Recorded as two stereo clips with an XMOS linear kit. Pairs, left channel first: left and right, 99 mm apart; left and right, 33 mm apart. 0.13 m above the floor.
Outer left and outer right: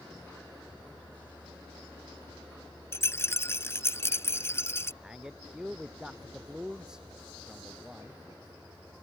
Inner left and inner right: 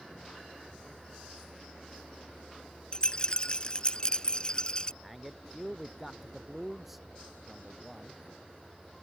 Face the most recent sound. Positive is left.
turn(degrees=-5)  # may be behind; listen again after turning